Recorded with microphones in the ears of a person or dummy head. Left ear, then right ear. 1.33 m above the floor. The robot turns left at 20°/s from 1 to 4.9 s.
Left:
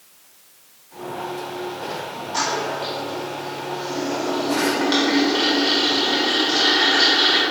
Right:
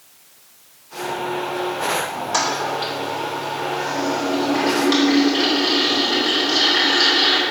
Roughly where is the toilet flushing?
Behind right.